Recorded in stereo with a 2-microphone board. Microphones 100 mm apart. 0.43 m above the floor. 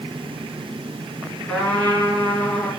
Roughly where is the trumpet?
Centre.